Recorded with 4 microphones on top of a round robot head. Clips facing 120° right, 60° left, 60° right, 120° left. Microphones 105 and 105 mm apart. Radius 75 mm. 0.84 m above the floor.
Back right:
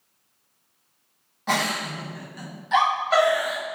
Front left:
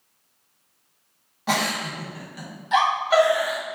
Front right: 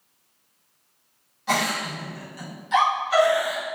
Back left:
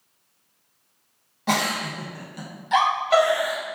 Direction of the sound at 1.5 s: 140° left.